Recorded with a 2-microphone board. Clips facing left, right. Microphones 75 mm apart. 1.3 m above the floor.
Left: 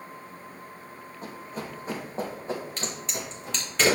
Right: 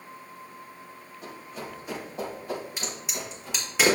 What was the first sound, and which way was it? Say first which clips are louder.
Running footsteps: left 2 dB; 45° left (ahead or behind).